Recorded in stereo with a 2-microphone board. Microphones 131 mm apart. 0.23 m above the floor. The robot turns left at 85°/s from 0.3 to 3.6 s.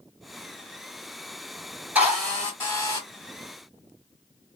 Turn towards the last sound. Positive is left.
turn(degrees=65)